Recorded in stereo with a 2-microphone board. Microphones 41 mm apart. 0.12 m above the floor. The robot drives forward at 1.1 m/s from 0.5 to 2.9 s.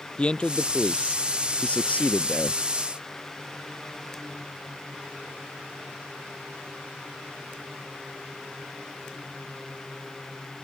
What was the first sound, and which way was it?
A man speaking, 25° left (ahead or behind).